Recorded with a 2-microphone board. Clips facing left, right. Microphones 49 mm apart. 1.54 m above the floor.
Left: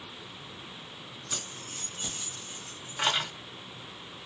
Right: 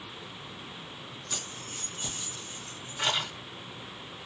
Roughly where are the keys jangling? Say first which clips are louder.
Even; centre.